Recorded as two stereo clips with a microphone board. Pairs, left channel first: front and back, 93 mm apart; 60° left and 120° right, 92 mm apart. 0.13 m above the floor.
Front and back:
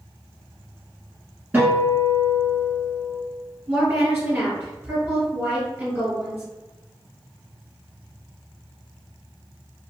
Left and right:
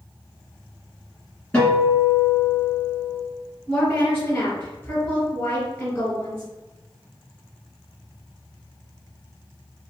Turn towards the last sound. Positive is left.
turn(degrees=110)